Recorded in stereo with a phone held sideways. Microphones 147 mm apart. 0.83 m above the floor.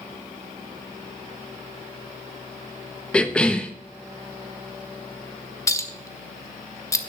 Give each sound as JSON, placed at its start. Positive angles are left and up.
{"t": 3.1, "sound": "a cough", "side_deg": 5, "distance_m": 0.7}
{"t": 5.7, "sound": "a clink", "side_deg": 20, "distance_m": 1.0}